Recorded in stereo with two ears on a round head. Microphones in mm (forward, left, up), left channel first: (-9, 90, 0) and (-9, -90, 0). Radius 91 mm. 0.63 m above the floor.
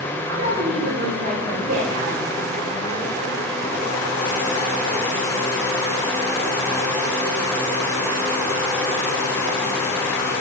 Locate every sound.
0.3 s a woman speaking: 50° right (ahead or behind), 3 m; by 2.2 s 65° right (ahead or behind), 1.5 m